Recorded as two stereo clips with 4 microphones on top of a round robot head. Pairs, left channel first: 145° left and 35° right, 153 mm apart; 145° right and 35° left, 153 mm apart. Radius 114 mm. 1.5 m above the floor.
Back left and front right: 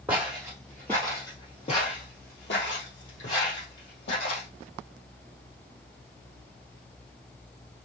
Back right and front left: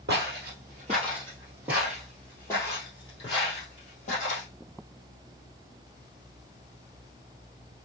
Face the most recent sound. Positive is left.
turn(degrees=165)